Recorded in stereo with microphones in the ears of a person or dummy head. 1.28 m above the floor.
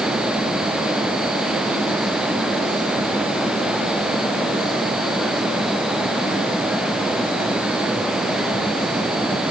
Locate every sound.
Only background noise.